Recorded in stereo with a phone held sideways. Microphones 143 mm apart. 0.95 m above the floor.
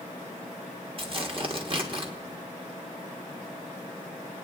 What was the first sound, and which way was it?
Tearing paper, 40° right (ahead or behind).